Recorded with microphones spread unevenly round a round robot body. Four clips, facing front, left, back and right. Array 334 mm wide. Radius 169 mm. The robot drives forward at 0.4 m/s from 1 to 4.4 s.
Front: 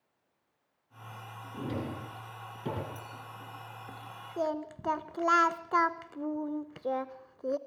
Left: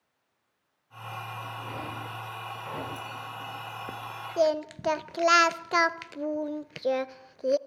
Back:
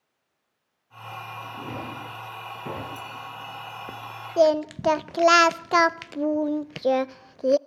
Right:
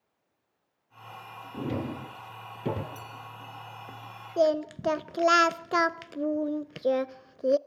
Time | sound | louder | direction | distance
1.5 | a drawer | right 9 dB, front 1 dB | 80° right | 5.5 m
3.0 | a clink | left 4 dB, back 8 dB | 105° right | 6 m
4.4 | singing | right 1 dB, back 14 dB | 170° right | 0.5 m